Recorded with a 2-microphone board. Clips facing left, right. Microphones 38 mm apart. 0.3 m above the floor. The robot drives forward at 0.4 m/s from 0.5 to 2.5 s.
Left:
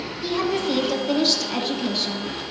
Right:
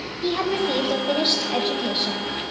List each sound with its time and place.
0.2 s a woman speaking: 25° right (ahead or behind), 1.1 m; by 2.4 s 20° right (ahead or behind), 1.4 m